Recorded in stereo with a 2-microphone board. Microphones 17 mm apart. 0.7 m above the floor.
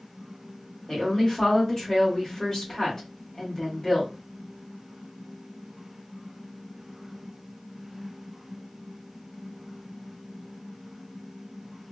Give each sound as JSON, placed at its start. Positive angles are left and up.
{"t": 0.9, "sound": "a woman speaking", "side_deg": 35, "distance_m": 1.8}